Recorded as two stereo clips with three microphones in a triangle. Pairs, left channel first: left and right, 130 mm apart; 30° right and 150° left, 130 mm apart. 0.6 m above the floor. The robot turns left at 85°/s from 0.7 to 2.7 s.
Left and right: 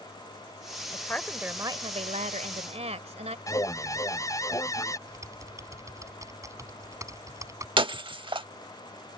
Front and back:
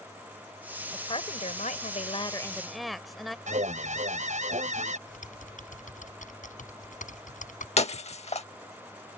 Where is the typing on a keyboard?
25° right.